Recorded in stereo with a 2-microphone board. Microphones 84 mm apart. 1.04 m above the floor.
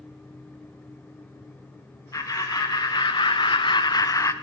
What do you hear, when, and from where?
2.1 s laughter: 40° left (ahead or behind), 1.1 m; by 4.3 s 35° left (ahead or behind), 0.6 m